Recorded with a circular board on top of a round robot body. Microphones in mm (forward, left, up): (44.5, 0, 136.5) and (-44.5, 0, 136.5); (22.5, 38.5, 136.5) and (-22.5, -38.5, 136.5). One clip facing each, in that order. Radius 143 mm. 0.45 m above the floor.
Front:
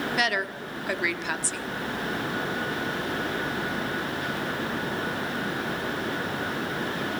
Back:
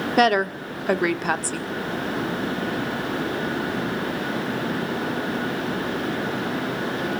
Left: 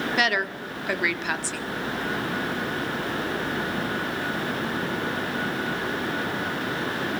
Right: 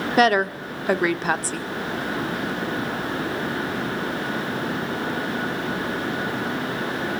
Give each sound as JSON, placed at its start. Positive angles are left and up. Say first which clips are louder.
{"t": 0.2, "sound": "a woman speaking", "louder": "back 14 dB, right 10 dB", "azimuth_deg": -160, "distance_m": 1.3}